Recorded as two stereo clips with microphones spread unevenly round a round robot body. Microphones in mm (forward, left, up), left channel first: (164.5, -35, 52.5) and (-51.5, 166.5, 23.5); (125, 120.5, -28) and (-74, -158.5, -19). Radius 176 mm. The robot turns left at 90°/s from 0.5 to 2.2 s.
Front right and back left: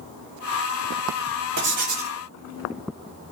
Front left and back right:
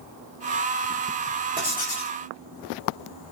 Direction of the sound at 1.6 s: 160° left.